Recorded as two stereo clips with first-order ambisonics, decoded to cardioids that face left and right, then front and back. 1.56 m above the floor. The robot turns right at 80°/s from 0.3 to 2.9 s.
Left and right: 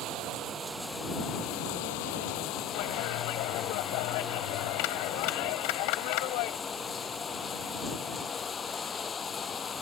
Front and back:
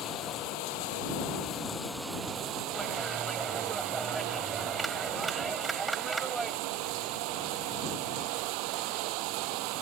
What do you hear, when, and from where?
0.0 s running water: 45° right; by 9.8 s 160° left
2.7 s a clap: 90° left; by 6.6 s 100° left